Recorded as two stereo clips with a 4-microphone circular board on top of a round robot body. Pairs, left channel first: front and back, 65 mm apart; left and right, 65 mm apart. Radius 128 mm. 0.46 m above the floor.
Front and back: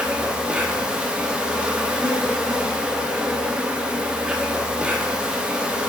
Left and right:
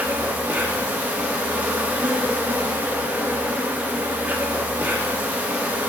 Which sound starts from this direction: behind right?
An insect, at 0.0 s.